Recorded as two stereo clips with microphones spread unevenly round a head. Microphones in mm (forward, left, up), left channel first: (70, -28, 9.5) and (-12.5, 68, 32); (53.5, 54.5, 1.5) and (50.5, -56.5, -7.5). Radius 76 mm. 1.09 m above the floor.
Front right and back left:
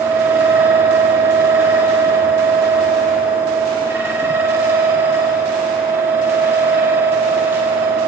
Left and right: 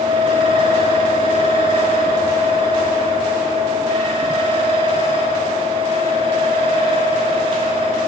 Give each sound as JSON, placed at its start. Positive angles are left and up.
{"t": 0.0, "sound": "a fan", "azimuth_deg": -150, "distance_m": 1.6}